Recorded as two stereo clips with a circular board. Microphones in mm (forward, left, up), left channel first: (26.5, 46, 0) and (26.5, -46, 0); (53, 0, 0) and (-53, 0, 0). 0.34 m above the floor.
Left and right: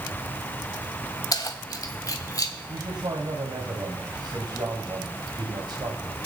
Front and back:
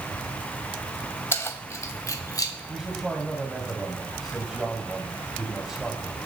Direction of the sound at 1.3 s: 60° left.